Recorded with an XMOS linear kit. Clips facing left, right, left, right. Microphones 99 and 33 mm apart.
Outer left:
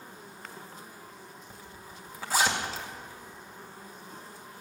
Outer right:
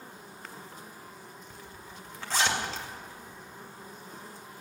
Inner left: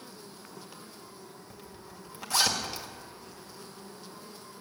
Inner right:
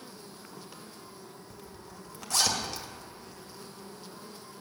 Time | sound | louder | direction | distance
1.5 | a zipper | even, even | 10° left (ahead or behind) | 2 m